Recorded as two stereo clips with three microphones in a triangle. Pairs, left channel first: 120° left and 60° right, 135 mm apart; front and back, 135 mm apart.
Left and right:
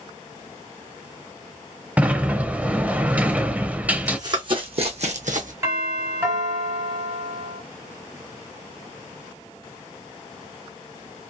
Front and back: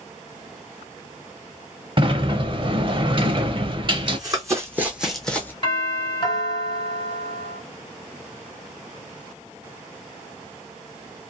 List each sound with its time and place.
2.0 s a sliding door: 140° right, 0.6 m
4.1 s running footsteps: 125° right, 1.5 m; by 5.5 s 75° right, 1.0 m
5.6 s a doorbell: 10° right, 2 m